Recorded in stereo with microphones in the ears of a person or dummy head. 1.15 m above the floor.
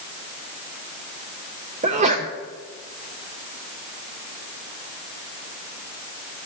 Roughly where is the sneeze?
Right.